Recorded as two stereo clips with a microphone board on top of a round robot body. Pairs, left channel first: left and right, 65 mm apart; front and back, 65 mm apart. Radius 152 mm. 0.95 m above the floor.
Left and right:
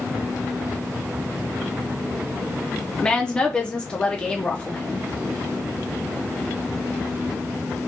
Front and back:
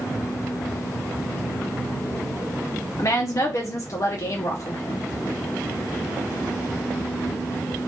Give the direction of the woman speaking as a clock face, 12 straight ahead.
11 o'clock.